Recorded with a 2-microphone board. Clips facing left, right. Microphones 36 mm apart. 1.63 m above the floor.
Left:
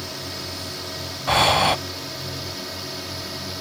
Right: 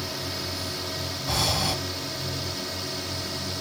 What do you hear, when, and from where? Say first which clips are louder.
0.0 s a drone: even; 5° right (ahead or behind); by 3.6 s centre (ahead or behind)
1.3 s breathing: left 10 dB; 45° left (ahead or behind)